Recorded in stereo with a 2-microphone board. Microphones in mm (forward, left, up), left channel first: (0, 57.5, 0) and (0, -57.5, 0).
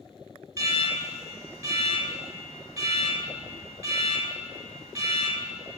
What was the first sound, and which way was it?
An alarm, 30° right (ahead or behind).